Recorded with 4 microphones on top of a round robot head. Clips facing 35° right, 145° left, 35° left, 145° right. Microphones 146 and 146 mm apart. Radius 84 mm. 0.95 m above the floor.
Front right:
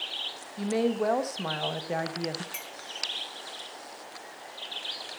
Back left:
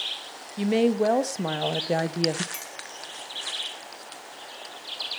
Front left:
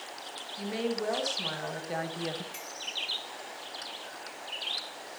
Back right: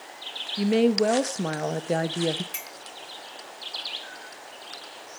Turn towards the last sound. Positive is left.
turn(degrees=-115)